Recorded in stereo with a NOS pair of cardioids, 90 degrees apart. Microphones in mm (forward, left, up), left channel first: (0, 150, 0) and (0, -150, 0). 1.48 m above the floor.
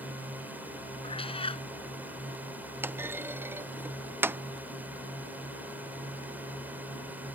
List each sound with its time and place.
0.0 s a drone: 5° right
1.0 s a cat meowing: 20° left
2.8 s a clunk: 5° right